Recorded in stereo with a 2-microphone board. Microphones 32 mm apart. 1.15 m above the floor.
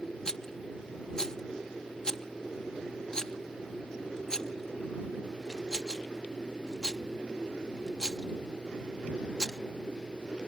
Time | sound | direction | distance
0.2 | a rattle | 20° left (ahead or behind) | ?